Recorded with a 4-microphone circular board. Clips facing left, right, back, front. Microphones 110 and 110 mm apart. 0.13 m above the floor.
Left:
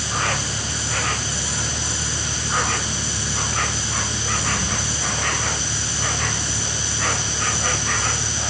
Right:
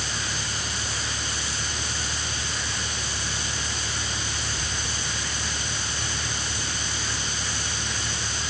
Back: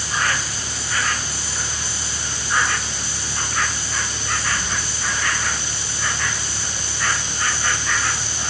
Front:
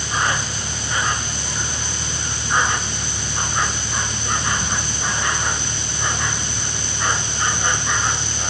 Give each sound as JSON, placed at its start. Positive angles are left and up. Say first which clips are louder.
{"t": 0.0, "sound": "an insect", "louder": "left 8 dB, front 2 dB", "azimuth_deg": 70}